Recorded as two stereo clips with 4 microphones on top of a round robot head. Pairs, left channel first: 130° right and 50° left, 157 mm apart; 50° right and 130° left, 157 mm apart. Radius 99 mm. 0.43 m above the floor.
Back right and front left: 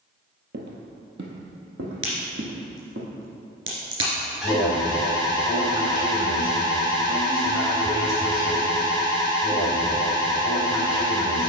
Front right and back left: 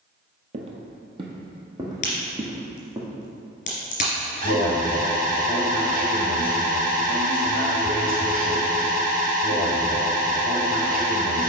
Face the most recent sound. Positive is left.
turn(degrees=140)